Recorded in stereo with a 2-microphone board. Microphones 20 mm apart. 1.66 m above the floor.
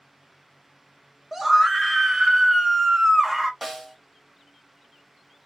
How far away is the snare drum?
About 0.8 m.